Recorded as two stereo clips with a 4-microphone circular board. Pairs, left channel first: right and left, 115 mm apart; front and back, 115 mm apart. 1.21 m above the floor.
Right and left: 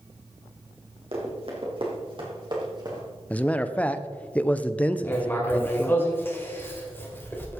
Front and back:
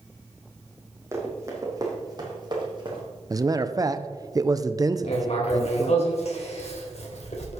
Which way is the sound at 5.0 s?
20° right.